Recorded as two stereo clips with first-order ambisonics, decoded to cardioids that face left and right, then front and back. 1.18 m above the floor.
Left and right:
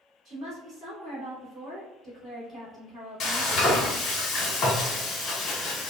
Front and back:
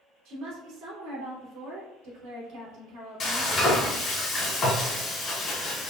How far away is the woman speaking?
About 1.7 m.